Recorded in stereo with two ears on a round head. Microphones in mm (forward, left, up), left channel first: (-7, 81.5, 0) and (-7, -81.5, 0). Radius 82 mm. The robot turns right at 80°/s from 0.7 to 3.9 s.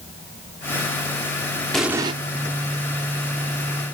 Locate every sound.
1.7 s an explosion: 175° left, 1.3 m; by 2.1 s 150° right, 1.3 m